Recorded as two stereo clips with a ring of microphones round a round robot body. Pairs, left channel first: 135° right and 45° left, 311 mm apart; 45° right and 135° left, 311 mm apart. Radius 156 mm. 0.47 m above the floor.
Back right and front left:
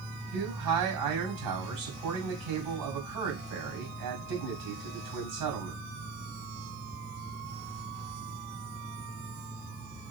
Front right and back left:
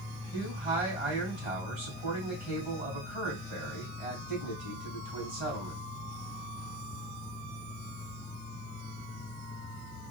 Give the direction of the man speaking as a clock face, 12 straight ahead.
10 o'clock.